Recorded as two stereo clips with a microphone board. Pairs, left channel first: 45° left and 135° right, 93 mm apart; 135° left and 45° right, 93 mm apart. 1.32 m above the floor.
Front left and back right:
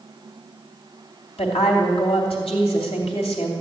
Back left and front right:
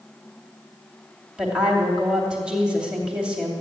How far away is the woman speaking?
About 2.5 m.